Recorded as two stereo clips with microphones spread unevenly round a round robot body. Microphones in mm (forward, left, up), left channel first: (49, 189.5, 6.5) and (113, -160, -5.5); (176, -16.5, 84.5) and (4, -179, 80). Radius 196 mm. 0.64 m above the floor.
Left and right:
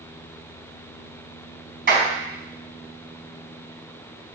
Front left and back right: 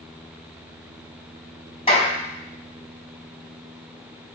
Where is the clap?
25° right, 4 m.